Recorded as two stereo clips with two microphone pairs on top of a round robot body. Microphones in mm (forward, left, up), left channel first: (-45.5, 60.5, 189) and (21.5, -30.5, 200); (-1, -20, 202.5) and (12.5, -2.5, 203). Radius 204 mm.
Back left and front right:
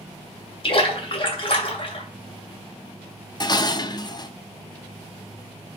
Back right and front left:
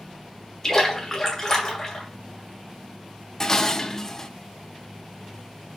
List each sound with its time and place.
0.6 s a splash: 165° left, 2.5 m
3.4 s dishes clattering: 170° left, 0.8 m